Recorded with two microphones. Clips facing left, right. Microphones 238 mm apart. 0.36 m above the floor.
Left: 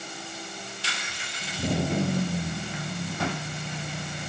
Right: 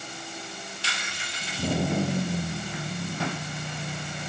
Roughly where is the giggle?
I don't hear a giggle.